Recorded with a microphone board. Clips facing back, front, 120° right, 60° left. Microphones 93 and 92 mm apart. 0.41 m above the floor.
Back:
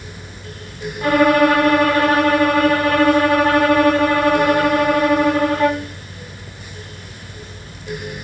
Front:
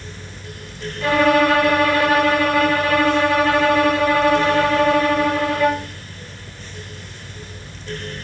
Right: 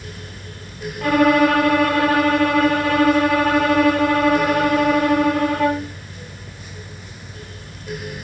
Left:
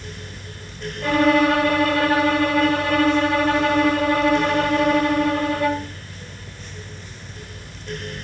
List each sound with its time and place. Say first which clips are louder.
1.0 s a violin: back 2 dB, right 2 dB; 125° right, 9 m